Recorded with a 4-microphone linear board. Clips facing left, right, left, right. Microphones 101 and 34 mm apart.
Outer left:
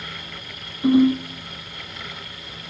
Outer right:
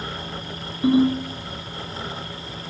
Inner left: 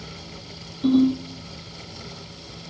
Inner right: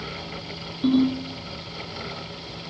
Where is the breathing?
I don't hear breathing.